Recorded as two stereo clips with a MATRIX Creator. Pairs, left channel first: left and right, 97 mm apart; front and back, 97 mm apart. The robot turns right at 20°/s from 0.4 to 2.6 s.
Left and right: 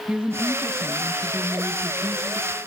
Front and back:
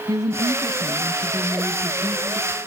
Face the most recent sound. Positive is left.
turn(degrees=-120)